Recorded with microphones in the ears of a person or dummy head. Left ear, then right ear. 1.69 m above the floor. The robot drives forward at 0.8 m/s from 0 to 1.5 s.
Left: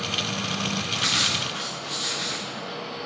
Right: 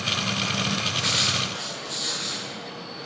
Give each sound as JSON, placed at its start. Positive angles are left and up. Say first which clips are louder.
{"t": 0.9, "sound": "writing", "louder": "left 1 dB", "side_deg": 30, "distance_m": 0.8}